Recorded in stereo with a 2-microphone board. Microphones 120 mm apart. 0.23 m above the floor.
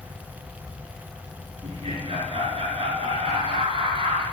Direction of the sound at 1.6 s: 60° right (ahead or behind).